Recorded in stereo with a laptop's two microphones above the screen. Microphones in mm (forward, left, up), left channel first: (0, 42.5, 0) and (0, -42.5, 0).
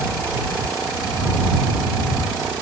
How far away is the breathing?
No breathing in this recording.